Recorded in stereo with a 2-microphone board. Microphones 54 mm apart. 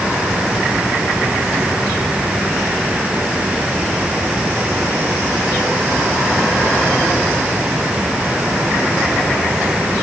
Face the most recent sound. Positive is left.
No sound to turn to.